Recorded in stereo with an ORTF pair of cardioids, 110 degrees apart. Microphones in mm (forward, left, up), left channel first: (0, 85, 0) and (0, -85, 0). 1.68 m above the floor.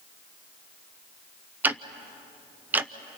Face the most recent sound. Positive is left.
turn(degrees=-10)